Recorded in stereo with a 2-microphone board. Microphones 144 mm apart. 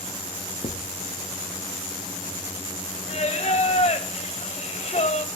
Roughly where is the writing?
Left.